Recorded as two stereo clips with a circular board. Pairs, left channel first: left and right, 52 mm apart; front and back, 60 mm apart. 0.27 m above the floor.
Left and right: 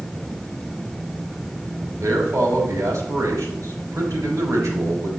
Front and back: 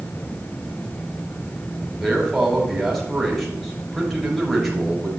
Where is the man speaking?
85° right, 4.5 m.